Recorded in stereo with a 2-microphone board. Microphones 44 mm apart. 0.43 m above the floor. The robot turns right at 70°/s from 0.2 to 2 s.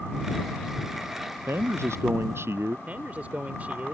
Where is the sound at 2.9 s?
40° right (ahead or behind).